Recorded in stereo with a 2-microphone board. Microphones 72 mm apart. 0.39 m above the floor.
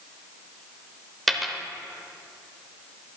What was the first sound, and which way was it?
A dropped coin, centre (ahead or behind).